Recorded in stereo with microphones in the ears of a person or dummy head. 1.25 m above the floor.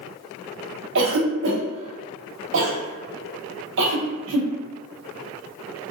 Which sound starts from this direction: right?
A cough, at 0.9 s.